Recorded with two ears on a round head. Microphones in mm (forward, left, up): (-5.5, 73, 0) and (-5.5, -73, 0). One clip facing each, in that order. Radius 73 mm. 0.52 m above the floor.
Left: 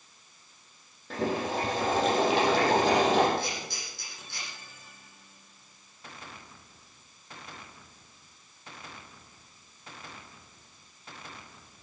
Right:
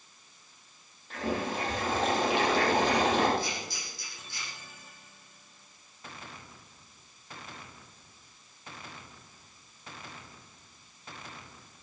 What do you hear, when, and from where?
1.1 s boiling: 70° left (ahead or behind), 7.5 m
3.4 s a camera shutter: 55° left (ahead or behind), 9.5 m